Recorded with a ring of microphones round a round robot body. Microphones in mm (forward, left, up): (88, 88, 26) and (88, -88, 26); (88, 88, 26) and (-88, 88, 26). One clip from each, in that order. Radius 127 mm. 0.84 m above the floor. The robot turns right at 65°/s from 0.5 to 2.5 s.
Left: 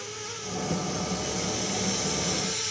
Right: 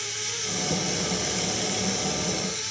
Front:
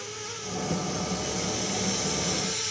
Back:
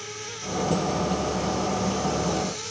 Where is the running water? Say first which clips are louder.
Right 6 dB, back 1 dB; 110° right, 3.5 m; by 2.7 s 20° left, 3.5 m.